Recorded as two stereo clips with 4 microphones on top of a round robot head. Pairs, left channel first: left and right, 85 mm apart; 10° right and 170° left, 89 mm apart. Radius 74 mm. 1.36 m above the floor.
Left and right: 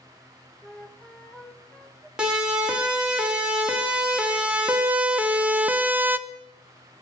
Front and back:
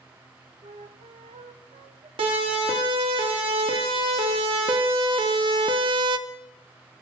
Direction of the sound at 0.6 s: 170° left.